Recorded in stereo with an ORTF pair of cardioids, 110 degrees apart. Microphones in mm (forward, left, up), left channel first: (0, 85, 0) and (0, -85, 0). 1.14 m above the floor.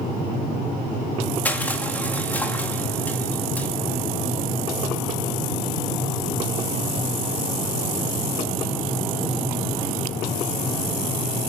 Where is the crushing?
10° left, 2 m.